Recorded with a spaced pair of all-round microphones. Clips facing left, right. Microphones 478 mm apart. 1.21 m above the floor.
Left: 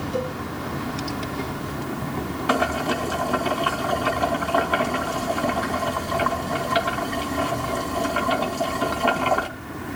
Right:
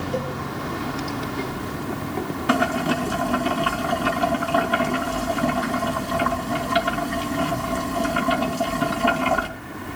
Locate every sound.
0.1 s a cowbell: 75° right (ahead or behind), 4 m
2.5 s boiling: 40° right (ahead or behind), 3 m